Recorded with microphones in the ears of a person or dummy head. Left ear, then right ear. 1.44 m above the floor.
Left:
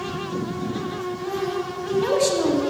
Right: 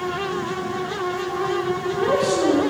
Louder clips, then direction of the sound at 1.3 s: Right 1 dB; 10° left (ahead or behind).